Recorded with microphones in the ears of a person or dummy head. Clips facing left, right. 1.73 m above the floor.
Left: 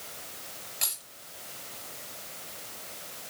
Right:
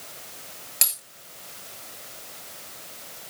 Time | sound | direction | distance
0.8 | a dropped coin | 80° right | 10 m